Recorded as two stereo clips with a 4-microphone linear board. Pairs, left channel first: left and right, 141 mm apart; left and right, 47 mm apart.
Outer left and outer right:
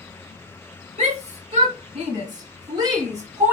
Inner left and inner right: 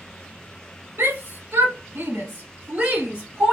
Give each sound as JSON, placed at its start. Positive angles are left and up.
{"t": 1.0, "sound": "a shout", "side_deg": -55, "distance_m": 2.5}